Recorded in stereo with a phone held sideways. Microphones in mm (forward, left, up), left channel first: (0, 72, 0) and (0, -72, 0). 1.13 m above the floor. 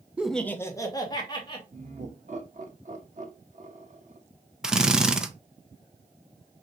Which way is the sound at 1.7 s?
55° right (ahead or behind).